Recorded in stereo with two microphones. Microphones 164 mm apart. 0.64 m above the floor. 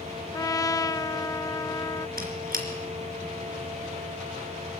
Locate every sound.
0.3 s a trumpet: 20° left (ahead or behind), 0.5 m
2.2 s a squeak: 60° right (ahead or behind), 3 m